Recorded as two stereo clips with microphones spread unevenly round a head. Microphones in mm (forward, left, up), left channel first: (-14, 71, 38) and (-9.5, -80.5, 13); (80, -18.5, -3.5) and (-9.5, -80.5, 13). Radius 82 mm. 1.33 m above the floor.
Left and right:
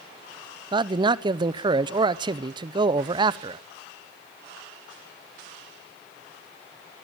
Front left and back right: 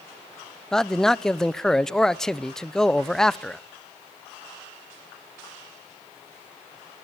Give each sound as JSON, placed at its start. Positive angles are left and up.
{"t": 0.7, "sound": "a man speaking", "azimuth_deg": -45, "distance_m": 0.8}